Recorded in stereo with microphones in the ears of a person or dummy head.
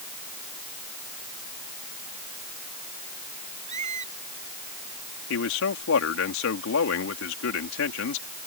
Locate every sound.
3.7 s a squeak: 40° right (ahead or behind)
5.3 s a man speaking: 70° left (ahead or behind)